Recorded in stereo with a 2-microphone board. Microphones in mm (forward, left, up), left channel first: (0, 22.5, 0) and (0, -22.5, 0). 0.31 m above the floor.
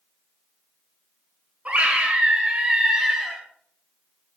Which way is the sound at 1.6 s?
30° right (ahead or behind).